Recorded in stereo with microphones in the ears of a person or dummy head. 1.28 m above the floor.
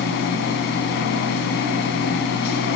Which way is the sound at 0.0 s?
65° left (ahead or behind).